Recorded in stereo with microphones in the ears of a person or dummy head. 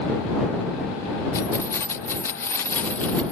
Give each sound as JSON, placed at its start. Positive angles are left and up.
{"t": 1.3, "sound": "keys jangling", "side_deg": 15}